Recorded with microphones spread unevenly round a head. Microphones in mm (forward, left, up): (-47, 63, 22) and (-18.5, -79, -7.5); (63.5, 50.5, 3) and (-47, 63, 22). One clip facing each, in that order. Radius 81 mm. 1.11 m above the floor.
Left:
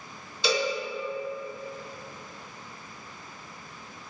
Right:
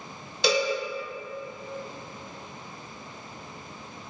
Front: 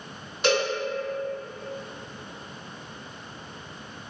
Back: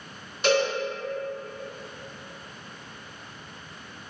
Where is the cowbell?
100° right, 1.6 m.